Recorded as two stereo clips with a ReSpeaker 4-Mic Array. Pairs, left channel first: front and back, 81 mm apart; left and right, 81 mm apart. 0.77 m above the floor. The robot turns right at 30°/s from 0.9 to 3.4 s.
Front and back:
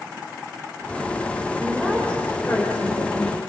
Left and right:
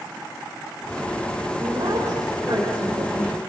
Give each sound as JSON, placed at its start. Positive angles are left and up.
{"t": 1.6, "sound": "a woman speaking", "azimuth_deg": -85, "distance_m": 4.0}